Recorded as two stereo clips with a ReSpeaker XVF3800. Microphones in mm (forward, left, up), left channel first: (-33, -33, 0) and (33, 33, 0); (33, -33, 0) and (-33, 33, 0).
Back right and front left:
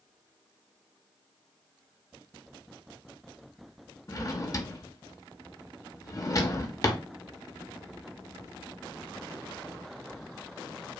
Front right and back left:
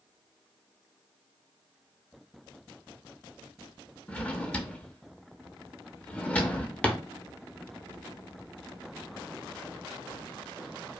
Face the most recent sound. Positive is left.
turn(degrees=-115)